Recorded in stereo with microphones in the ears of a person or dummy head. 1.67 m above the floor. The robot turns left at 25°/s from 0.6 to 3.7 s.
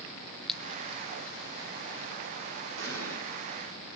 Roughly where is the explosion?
Right.